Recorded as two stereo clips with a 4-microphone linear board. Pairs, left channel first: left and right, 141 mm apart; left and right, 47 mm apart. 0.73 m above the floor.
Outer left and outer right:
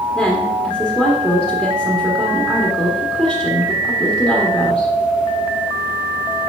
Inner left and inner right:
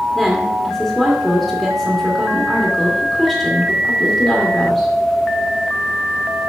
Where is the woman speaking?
5° right (ahead or behind), 1.7 m.